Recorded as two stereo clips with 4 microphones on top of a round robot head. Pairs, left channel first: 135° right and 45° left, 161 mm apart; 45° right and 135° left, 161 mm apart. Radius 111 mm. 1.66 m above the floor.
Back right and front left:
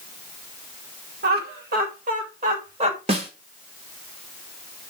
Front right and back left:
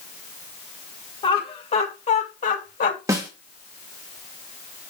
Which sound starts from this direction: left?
A snare drum, at 3.1 s.